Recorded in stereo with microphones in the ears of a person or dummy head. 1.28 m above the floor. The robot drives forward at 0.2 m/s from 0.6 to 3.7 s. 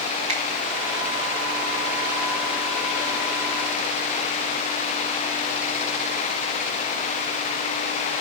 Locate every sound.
0.3 s a finger snap: 35° right (ahead or behind), 3 m